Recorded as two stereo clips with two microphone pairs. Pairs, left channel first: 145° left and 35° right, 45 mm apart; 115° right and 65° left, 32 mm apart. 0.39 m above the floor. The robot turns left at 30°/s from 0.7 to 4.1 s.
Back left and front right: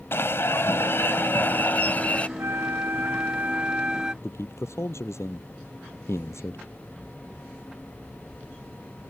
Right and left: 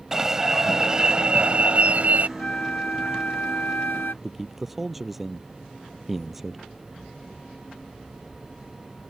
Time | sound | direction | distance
0.1 | an alarm | 135° left | ?
2.4 | a flute | 60° right | ?
4.2 | a man speaking | 150° left | ?